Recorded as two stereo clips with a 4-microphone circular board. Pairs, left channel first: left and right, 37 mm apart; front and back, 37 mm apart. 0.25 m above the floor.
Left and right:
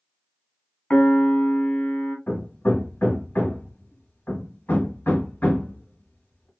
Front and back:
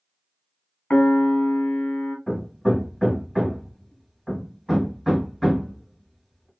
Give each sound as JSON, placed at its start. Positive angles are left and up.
{"t": 0.9, "sound": "a piano", "azimuth_deg": 45, "distance_m": 0.8}
{"t": 2.3, "sound": "hammering", "azimuth_deg": 90, "distance_m": 1.0}